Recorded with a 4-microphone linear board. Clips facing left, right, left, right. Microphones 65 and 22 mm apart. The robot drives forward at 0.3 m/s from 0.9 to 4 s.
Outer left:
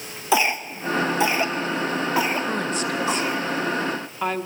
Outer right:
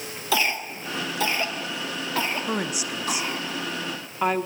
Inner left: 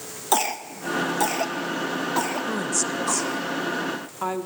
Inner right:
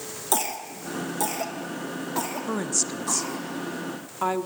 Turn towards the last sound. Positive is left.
turn(degrees=-10)  # may be behind; listen again after turning